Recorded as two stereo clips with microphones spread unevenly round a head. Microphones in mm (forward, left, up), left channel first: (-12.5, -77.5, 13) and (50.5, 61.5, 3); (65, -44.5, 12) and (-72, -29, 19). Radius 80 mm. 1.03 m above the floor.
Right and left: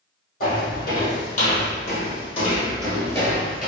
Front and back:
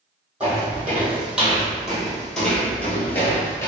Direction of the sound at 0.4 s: 110° right.